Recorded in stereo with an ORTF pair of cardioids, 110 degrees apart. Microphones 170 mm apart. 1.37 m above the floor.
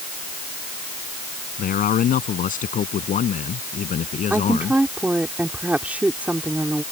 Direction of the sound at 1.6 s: 55° left.